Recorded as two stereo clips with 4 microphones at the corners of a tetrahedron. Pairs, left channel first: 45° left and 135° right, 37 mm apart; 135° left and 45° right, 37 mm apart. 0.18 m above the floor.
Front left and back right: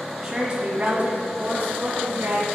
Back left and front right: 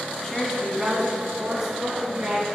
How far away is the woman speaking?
About 1.1 m.